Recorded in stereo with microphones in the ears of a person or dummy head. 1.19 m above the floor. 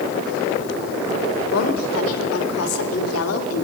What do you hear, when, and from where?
1.5 s a woman speaking: 80° left, 5 m